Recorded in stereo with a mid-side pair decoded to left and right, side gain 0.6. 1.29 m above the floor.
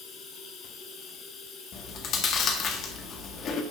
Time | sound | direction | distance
0.0 | running water | 55° left | 3.5 m
1.7 | chewing | 50° left | 1.6 m